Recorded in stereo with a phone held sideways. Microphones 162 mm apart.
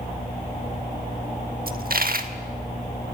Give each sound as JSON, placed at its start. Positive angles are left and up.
{"t": 1.7, "sound": "a dropped coin", "side_deg": -65, "distance_m": 1.3}